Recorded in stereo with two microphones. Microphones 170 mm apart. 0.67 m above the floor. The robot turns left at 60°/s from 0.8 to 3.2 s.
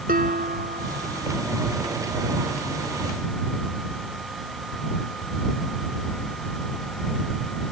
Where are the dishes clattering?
60° right; by 1.4 s 95° right.